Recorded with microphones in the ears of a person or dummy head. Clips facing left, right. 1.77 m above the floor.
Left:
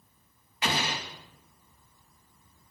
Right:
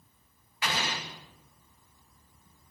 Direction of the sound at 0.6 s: 25° left (ahead or behind).